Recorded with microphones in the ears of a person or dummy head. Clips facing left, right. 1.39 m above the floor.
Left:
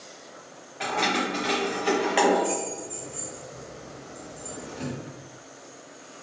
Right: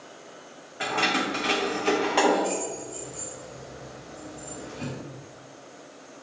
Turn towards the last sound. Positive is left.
turn(degrees=70)  # may be behind; listen again after turning